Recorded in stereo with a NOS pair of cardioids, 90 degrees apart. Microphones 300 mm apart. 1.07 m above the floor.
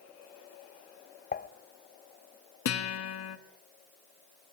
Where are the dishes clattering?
35° left, 0.9 m.